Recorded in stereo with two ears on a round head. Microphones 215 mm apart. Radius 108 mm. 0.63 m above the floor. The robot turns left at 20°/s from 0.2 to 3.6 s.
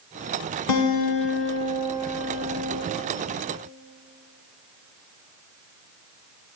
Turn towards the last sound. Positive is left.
turn(degrees=15)